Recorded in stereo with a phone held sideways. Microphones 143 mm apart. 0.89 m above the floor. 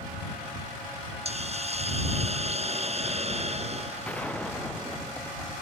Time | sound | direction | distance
1.2 | a hiss | 50° right (ahead or behind) | ?
4.0 | a gunshot | 10° left (ahead or behind) | ?